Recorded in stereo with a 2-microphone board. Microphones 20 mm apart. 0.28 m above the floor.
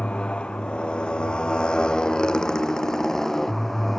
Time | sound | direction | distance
0.0 | a motorcycle | 70° left (ahead or behind) | ?